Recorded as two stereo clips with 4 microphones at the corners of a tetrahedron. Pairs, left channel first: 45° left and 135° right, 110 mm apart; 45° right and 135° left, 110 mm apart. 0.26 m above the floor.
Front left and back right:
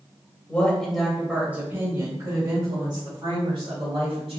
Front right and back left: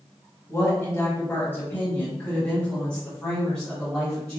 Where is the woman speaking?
15° right, 1.6 m; by 4.4 s 135° right, 3 m.